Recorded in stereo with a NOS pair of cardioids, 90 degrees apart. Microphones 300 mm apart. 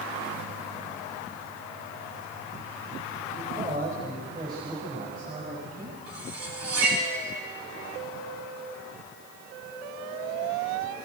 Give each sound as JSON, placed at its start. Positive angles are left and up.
{"t": 3.3, "sound": "a man speaking", "azimuth_deg": -35, "distance_m": 5.5}
{"t": 6.1, "sound": "cutlery clinking", "azimuth_deg": -50, "distance_m": 8.5}